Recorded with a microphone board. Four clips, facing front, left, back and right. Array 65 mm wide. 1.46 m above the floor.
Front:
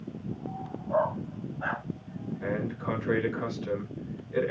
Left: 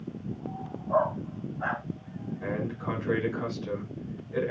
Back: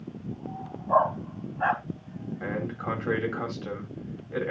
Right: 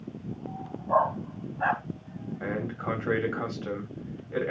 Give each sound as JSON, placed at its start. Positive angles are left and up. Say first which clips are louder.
{"t": 0.9, "sound": "a dog barking", "louder": "right 2 dB, back 4 dB", "azimuth_deg": -135, "distance_m": 3.5}
{"t": 2.4, "sound": "a man speaking", "louder": "right 1 dB, even", "azimuth_deg": -130, "distance_m": 9.5}